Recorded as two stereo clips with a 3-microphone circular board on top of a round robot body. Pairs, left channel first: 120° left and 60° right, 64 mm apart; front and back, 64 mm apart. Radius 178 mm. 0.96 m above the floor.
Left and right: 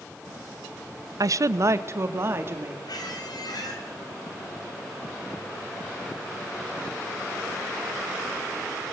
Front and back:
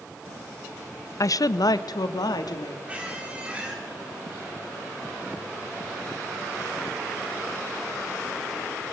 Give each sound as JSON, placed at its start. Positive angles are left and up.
{"t": 1.2, "sound": "a woman speaking", "azimuth_deg": -35, "distance_m": 0.7}
{"t": 2.9, "sound": "a squeak", "azimuth_deg": 105, "distance_m": 4.5}